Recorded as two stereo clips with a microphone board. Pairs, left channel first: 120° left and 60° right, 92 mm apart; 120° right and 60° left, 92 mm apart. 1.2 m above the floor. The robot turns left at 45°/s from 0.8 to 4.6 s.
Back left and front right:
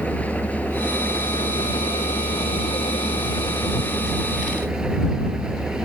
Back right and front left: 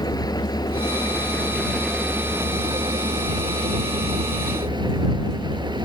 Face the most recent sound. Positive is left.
turn(degrees=25)